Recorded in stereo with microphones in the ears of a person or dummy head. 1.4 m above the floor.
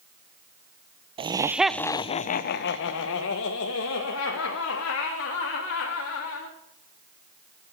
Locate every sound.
1.2 s laughter: 30° right (ahead or behind), 0.7 m; by 6.5 s 90° left, 3.5 m